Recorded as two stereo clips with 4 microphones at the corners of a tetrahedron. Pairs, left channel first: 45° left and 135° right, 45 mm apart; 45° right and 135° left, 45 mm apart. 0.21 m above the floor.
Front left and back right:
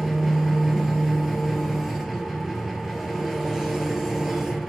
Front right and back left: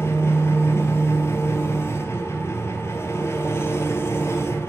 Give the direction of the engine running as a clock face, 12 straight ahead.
2 o'clock.